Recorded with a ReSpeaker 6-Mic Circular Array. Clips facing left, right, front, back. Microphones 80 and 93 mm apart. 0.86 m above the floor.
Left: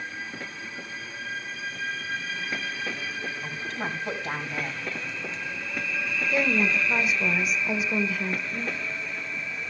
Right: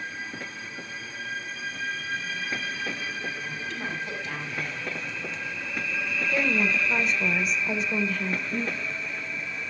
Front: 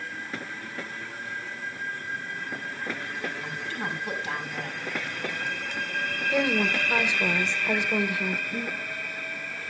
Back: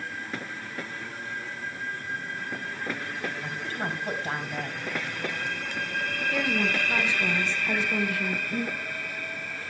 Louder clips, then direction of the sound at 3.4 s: Left 1 dB, back 1 dB; 135° left.